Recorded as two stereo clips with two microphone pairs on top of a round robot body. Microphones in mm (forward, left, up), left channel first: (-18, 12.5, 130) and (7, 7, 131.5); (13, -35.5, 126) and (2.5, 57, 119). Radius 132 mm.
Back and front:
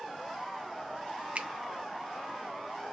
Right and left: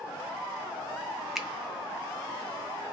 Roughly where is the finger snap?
Ahead.